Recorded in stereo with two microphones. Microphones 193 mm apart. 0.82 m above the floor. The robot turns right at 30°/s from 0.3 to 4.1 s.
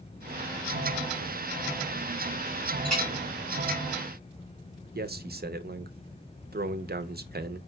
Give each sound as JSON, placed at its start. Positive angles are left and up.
{"t": 2.9, "sound": "a clink", "side_deg": 5, "distance_m": 3.0}
{"t": 5.0, "sound": "a man speaking", "side_deg": -55, "distance_m": 0.5}